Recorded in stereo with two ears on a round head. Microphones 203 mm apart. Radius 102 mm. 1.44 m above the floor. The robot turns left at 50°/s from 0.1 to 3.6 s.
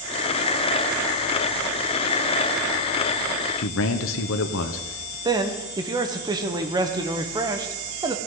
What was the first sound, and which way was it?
A man speaking, 65° left (ahead or behind).